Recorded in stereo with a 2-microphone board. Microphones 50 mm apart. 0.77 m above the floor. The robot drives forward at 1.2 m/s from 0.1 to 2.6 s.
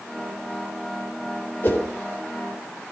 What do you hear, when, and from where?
1.6 s a whoosh: 45° left (ahead or behind), 3.5 m; by 1.8 s 40° left (ahead or behind), 3.5 m